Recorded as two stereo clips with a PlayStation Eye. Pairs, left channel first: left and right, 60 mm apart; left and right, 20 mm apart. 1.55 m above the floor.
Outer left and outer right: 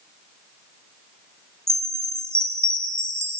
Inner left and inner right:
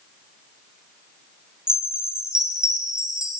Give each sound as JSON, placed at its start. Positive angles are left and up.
{"t": 1.7, "sound": "a chime", "side_deg": -45, "distance_m": 3.0}